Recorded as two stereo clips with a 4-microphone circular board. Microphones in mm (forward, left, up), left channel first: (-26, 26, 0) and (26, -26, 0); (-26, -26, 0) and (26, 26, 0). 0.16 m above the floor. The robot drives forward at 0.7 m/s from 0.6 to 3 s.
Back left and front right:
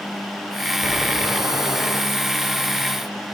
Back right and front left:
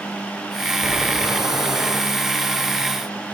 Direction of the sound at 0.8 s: 10° right.